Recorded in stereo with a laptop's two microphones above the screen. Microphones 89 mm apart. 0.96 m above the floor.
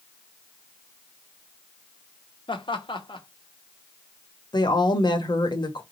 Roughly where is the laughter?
Left.